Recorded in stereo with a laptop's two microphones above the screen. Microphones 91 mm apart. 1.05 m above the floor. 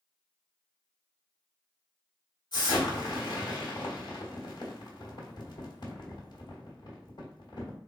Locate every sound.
2.5 s an explosion: 55° left (ahead or behind), 1.6 m